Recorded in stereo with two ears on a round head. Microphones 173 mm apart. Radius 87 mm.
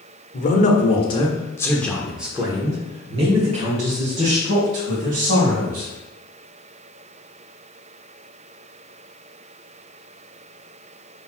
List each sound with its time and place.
0.3 s a man speaking: 45° left (ahead or behind), 1.4 m; by 5.9 s 55° right (ahead or behind), 2.5 m